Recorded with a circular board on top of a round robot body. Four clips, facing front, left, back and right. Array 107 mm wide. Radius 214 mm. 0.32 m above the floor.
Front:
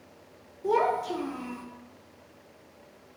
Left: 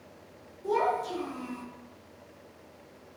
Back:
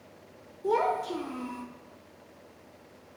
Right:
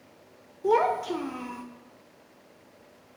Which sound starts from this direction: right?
A child speaking, at 0.6 s.